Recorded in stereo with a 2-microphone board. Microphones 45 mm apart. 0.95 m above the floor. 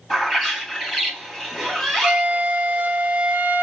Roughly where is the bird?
Centre.